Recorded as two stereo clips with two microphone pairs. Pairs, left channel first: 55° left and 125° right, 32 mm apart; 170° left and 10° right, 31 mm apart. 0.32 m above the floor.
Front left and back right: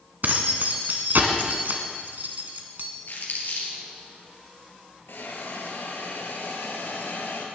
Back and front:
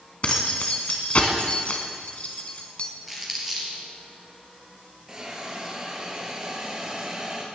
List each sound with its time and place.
0.2 s keys jangling: 145° right, 1.7 m
3.1 s crumpling: 80° left, 4 m
5.1 s a hiss: 60° left, 2.5 m